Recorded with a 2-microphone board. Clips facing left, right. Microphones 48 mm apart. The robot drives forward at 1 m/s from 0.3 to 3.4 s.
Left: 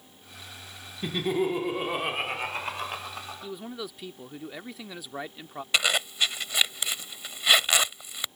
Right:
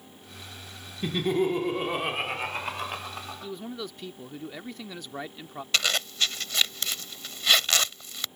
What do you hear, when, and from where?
1.0 s laughter: centre (ahead or behind)
3.4 s a man speaking: 5° left (ahead or behind)
5.7 s a zipper: 15° left (ahead or behind)